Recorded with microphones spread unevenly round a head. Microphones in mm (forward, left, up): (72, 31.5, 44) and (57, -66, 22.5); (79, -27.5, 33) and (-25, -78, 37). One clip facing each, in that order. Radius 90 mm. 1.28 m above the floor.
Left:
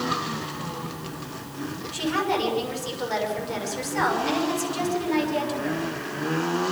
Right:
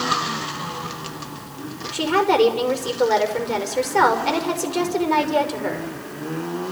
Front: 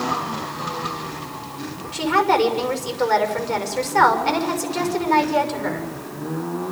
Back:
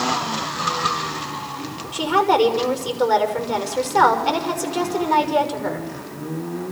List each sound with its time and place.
1.9 s a woman speaking: 80° right, 5.5 m